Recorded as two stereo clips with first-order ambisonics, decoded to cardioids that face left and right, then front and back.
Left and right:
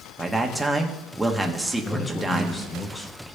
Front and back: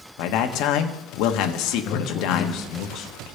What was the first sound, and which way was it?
A man speaking, 5° right.